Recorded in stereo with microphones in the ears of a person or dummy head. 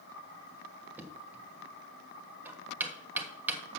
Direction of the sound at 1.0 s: 10° right (ahead or behind).